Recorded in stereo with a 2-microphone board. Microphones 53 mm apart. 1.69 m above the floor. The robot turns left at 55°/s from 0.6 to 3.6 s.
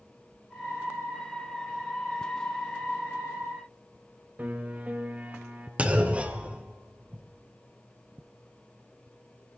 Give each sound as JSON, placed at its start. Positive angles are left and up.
{"t": 4.4, "sound": "a piano", "side_deg": -35, "distance_m": 1.7}
{"t": 5.8, "sound": "a clunk", "side_deg": -25, "distance_m": 1.0}